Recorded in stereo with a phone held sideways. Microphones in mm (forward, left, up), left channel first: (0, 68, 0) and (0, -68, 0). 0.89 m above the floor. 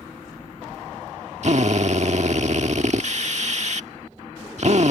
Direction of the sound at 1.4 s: 55° right (ahead or behind).